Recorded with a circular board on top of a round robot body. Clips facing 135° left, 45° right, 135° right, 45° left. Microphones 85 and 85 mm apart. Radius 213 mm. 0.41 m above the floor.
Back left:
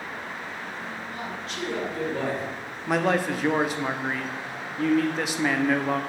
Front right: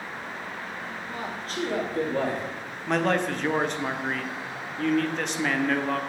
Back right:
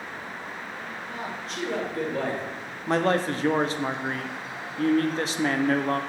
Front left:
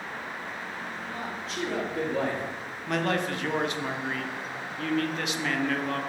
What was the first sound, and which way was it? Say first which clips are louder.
A man speaking: front right 1 dB, back right 2 dB; 60° right.